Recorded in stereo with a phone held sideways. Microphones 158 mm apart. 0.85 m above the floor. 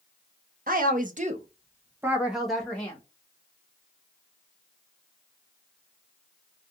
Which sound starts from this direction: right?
A woman speaking, at 0.7 s.